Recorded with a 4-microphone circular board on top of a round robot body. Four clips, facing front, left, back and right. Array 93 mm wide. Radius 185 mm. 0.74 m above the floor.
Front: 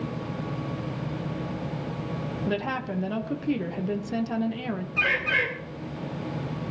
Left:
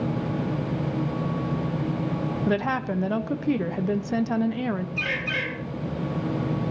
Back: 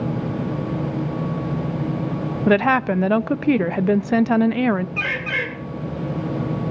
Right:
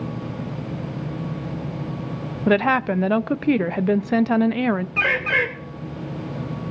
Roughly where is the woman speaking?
Behind right.